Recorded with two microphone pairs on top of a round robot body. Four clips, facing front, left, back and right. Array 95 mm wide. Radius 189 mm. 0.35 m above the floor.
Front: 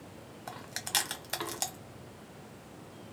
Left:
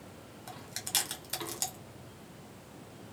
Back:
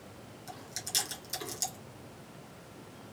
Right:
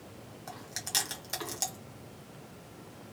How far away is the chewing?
About 1.5 m.